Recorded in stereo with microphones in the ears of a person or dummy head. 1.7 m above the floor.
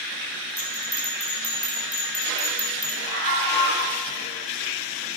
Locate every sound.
0.6 s a bell: 15° left (ahead or behind), 3 m
3.0 s a scream: 35° left (ahead or behind), 6.5 m